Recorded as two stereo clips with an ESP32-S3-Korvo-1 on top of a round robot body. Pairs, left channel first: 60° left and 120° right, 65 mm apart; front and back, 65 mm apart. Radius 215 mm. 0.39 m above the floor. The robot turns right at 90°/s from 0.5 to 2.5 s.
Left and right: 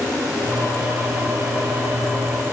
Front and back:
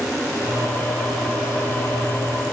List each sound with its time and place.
Only background noise.